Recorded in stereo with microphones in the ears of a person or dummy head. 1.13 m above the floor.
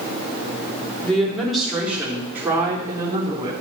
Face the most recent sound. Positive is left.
turn(degrees=-20)  # may be behind; listen again after turning